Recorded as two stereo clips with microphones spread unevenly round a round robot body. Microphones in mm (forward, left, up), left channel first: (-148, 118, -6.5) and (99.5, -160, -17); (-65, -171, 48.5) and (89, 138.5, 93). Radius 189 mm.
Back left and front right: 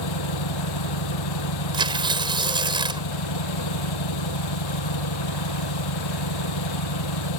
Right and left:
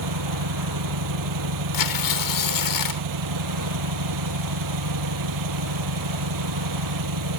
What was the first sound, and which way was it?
An engine running, 100° left.